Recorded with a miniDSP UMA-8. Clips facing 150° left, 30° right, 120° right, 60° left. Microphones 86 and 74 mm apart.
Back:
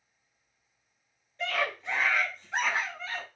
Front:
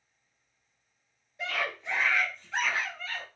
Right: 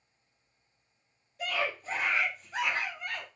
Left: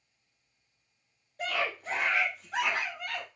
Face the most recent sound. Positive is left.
turn(degrees=85)